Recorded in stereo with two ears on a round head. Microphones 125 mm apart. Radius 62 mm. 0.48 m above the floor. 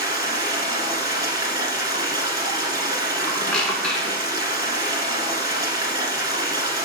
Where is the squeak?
5° left (ahead or behind), 0.8 m.